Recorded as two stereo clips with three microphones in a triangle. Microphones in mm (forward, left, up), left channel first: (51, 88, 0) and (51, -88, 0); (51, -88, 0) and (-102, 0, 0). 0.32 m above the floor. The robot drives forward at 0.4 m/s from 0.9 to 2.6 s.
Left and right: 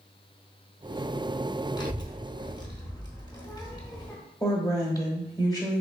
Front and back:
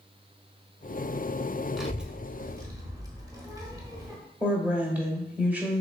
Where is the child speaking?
60° left, 0.8 m; by 4.2 s 110° left, 0.8 m.